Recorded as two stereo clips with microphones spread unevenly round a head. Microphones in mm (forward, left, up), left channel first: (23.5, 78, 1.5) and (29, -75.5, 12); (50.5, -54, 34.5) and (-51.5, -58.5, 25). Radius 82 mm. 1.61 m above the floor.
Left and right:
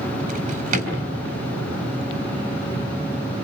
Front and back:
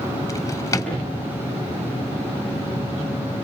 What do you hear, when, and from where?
0.3 s a drawer: 55° right, 5.5 m